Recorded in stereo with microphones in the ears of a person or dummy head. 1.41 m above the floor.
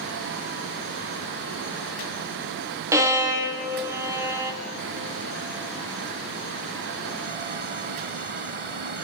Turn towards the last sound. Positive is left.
turn(degrees=-15)  # may be behind; listen again after turning